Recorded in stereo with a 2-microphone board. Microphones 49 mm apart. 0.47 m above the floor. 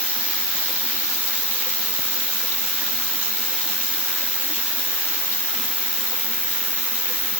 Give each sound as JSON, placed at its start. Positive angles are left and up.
{"t": 0.0, "sound": "an insect", "side_deg": 20, "distance_m": 3.0}